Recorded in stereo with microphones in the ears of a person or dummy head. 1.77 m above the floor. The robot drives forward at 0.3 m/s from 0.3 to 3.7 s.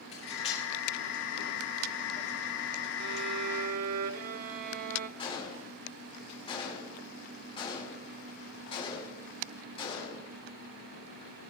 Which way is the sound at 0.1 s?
40° left (ahead or behind).